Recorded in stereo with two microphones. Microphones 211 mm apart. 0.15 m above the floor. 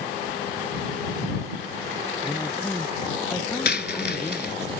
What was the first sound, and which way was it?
A man speaking, 15° left (ahead or behind).